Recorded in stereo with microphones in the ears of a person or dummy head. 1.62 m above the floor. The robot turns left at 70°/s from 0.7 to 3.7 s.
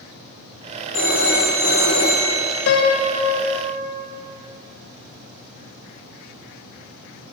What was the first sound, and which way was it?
A phone ringing, 115° left.